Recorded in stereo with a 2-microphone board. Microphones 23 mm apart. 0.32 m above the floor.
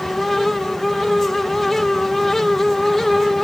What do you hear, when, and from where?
Only background noise.